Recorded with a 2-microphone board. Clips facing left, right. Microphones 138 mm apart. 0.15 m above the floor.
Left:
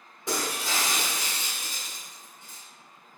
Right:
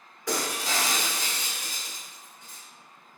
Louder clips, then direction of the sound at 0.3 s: Right 1 dB; 25° left (ahead or behind).